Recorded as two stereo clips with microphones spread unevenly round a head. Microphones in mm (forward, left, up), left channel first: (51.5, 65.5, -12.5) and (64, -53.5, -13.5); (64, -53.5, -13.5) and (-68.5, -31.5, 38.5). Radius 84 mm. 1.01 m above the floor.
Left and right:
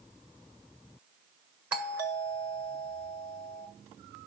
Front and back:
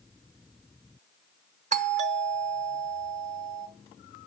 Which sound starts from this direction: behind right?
A doorbell, at 1.7 s.